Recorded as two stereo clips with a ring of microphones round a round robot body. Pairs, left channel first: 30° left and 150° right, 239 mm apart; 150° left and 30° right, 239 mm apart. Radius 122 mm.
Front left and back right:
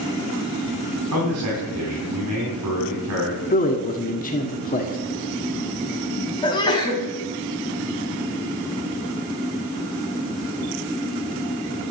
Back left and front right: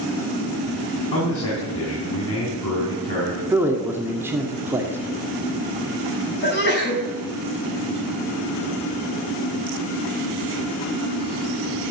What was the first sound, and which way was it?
A man speaking, 175° right.